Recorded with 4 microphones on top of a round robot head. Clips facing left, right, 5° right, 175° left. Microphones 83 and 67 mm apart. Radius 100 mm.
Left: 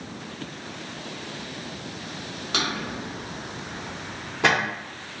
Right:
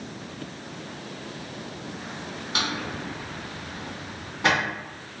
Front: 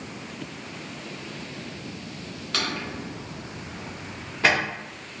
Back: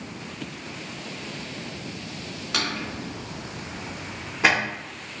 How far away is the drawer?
About 1.1 m.